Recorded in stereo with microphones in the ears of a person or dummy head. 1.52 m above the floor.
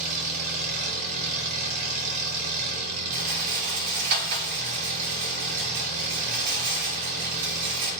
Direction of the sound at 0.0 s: 50° right (ahead or behind).